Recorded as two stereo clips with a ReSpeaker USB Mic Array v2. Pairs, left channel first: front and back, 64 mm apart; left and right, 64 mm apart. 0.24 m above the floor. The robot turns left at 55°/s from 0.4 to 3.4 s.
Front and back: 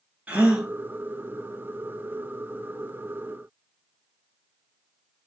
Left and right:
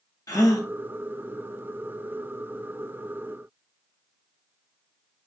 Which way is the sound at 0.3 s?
110° left.